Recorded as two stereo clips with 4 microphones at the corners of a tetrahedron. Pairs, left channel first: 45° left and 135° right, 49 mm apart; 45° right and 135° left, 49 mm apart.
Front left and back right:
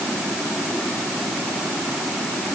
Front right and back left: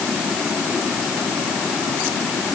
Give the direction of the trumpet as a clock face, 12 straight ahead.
I don't hear a trumpet.